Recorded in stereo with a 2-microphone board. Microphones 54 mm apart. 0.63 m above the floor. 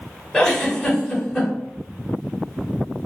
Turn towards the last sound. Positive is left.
turn(degrees=5)  # may be behind; listen again after turning